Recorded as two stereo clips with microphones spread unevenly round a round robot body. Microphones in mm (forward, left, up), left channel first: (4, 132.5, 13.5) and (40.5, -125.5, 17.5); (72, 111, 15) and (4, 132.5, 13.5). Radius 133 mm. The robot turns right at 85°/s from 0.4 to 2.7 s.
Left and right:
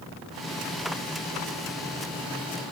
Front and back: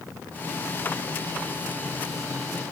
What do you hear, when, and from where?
Only background noise.